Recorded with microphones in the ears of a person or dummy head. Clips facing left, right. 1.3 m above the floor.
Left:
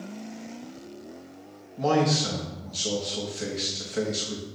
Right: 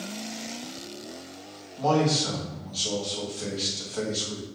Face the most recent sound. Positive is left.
turn(degrees=30)  # may be behind; listen again after turning